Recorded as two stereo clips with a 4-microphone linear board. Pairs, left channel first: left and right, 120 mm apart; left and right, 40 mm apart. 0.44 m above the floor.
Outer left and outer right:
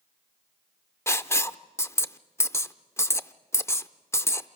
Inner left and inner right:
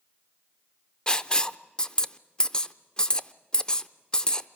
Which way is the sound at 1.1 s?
25° left (ahead or behind).